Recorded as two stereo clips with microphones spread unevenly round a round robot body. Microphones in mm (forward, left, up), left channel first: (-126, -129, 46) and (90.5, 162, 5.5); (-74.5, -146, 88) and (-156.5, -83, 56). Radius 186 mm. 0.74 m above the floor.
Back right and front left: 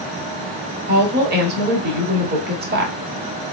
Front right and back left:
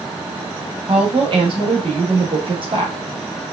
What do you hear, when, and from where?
0.9 s a woman speaking: 115° left, 1.6 m